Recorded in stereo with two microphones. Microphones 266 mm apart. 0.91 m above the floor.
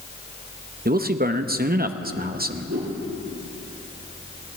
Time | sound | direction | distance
0.8 | a man speaking | 35° right (ahead or behind) | 0.7 m
2.7 | a whoosh | 85° right | 6 m